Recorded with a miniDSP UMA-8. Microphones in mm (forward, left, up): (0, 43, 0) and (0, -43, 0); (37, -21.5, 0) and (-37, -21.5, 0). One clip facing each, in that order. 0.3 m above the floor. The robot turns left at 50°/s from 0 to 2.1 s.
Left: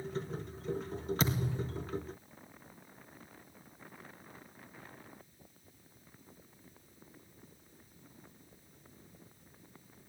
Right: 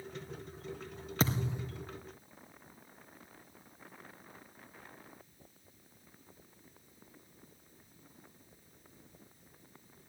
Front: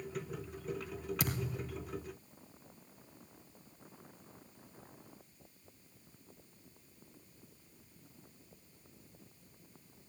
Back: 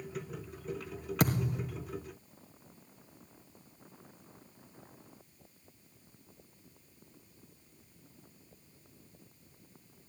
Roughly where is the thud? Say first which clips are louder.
Right 4 dB, back 12 dB; behind right.